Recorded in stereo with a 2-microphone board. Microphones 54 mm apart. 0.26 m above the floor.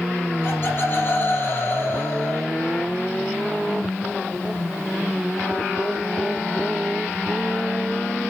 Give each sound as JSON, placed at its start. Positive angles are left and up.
{"t": 0.4, "sound": "laughter", "side_deg": 45, "distance_m": 7.0}